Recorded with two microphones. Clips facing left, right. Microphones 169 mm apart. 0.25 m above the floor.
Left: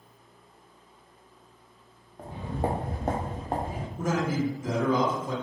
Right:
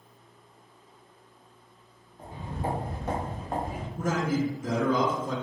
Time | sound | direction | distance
2.2 | footsteps | 70° left (ahead or behind) | 0.7 m
4.0 | a man speaking | 45° right (ahead or behind) | 1.4 m